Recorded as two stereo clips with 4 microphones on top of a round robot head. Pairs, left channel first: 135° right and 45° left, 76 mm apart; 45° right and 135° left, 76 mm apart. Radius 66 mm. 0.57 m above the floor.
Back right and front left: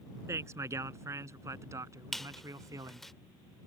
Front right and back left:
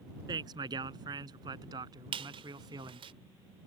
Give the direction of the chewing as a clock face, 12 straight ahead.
I don't hear chewing.